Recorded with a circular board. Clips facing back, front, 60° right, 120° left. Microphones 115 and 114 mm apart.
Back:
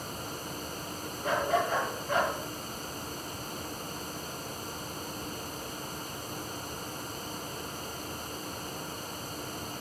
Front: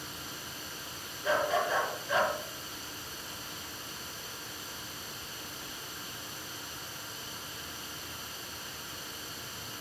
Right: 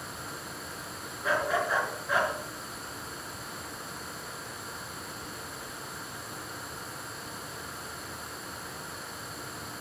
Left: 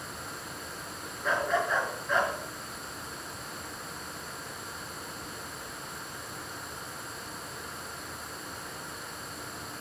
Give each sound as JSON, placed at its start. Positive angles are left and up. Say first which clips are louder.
{"t": 1.2, "sound": "a dog barking", "louder": "back 1 dB, even", "azimuth_deg": -145, "distance_m": 4.0}